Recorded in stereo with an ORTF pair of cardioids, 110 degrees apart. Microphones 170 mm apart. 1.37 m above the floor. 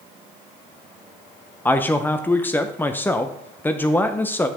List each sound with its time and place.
1.6 s a man speaking: 10° left, 0.8 m